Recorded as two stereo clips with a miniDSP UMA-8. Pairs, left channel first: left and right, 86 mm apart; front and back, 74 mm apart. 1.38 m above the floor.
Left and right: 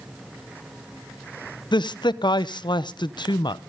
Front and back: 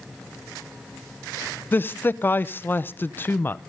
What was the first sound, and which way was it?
A man speaking, 60° left.